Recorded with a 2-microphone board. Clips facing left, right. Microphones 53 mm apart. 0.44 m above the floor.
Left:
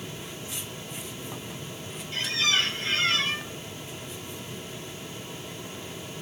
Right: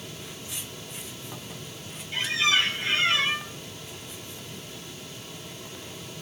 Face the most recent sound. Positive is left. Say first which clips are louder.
# right 2 dB
turn(degrees=-20)  # may be behind; listen again after turning